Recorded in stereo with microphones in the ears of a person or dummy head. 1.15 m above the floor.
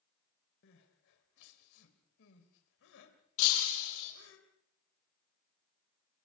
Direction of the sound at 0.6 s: 70° left (ahead or behind).